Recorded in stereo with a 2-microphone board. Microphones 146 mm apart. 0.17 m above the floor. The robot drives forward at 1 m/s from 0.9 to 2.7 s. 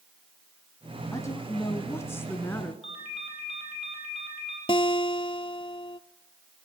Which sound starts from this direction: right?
A ringtone, at 2.8 s.